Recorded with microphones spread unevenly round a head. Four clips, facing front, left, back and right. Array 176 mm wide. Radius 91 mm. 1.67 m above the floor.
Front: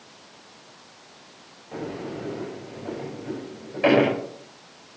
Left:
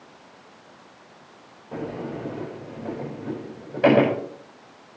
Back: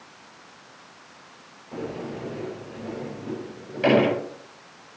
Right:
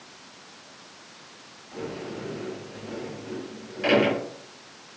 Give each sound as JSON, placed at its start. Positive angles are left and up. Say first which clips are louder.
{"t": 1.7, "sound": "a sliding door", "louder": "left 3 dB, even", "azimuth_deg": 90, "distance_m": 9.5}